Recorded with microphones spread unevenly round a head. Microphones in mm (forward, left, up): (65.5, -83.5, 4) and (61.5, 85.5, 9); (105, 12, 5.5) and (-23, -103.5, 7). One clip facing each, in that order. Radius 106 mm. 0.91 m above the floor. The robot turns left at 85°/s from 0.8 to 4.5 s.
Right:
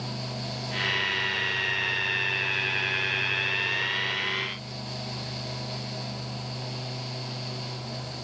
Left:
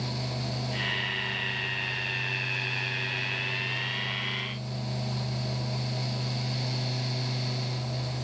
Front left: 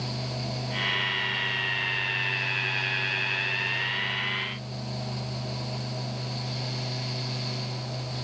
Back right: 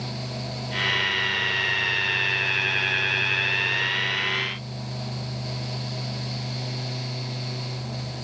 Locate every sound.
Only background noise.